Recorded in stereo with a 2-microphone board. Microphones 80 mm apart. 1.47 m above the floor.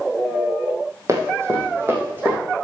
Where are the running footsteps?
35° right (ahead or behind), 3 m; by 2.4 s 25° right (ahead or behind), 4.5 m.